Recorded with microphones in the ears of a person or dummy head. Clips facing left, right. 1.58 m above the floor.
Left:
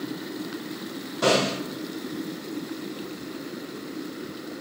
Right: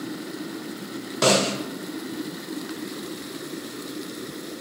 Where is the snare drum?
85° right, 0.9 m.